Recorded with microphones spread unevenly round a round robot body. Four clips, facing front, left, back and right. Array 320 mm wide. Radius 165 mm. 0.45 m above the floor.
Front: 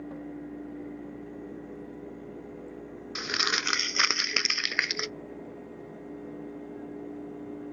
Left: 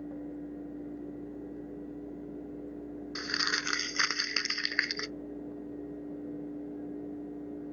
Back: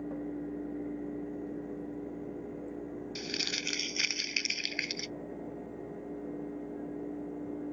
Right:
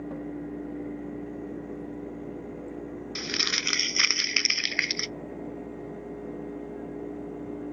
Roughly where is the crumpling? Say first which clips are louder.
Left 1 dB, front 7 dB; ahead.